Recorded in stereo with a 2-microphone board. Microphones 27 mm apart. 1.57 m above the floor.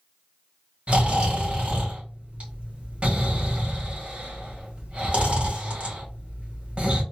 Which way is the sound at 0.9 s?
45° right (ahead or behind).